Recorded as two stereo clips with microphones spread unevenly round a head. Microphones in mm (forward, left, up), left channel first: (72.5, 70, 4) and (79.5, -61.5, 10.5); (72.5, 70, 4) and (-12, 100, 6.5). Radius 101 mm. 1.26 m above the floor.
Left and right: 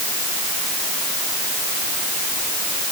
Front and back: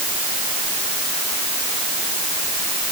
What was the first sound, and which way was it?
Only background noise.